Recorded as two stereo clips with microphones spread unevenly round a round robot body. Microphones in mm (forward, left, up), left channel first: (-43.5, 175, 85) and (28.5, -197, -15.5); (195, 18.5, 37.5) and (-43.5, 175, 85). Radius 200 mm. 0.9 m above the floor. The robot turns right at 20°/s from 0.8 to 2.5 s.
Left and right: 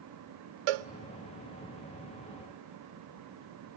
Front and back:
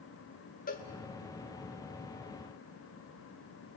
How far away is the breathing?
I don't hear breathing.